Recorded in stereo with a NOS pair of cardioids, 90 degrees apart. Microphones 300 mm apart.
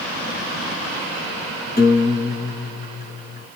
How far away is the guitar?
About 6 m.